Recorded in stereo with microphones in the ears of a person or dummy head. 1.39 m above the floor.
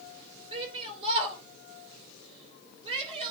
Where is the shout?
25° right (ahead or behind), 3.5 m.